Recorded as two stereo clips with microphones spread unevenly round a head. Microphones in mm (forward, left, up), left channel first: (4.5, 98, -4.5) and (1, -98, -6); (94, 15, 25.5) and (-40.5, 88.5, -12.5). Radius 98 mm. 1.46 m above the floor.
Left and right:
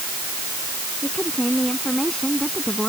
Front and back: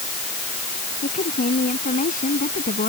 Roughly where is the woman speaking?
Ahead.